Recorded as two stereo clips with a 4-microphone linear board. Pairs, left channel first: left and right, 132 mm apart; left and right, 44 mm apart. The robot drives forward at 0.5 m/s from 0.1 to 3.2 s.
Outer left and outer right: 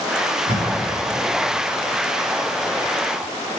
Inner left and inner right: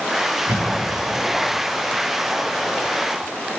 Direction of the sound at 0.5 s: 65° right (ahead or behind).